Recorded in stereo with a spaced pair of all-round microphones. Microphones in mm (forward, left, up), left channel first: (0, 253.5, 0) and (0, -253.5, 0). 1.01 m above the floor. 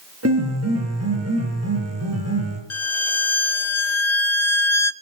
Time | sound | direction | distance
0.2 | a piano | 30° right (ahead or behind) | 7 m
2.7 | a violin | 65° left (ahead or behind) | 1.1 m